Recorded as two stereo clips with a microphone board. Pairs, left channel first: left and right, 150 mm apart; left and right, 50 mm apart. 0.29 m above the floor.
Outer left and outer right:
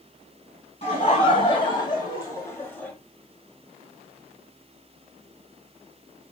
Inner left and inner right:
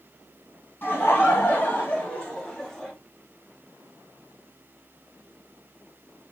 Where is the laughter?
40° left (ahead or behind), 1.9 m; by 2.9 s 5° left (ahead or behind), 1.1 m.